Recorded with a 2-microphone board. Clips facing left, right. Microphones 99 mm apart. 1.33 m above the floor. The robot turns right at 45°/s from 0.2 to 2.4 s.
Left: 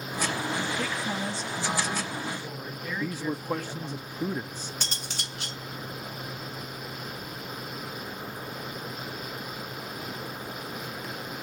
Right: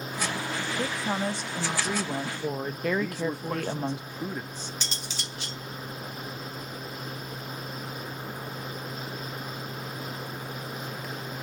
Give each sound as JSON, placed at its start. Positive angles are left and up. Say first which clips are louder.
{"t": 0.8, "sound": "a woman speaking", "louder": "right 2 dB", "azimuth_deg": -150, "distance_m": 1.3}
{"t": 3.0, "sound": "a man speaking", "louder": "right 1 dB", "side_deg": 10, "distance_m": 0.5}
{"t": 4.8, "sound": "cutlery clinking", "louder": "even", "side_deg": 55, "distance_m": 1.3}